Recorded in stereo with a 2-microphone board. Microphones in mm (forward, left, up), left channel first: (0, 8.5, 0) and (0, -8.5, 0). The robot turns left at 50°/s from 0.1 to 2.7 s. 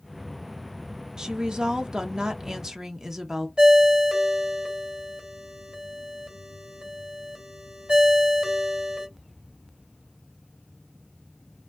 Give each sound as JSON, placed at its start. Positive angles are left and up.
{"t": 1.2, "sound": "a woman speaking", "azimuth_deg": -60, "distance_m": 0.6}
{"t": 3.6, "sound": "a ringtone", "side_deg": -80, "distance_m": 1.5}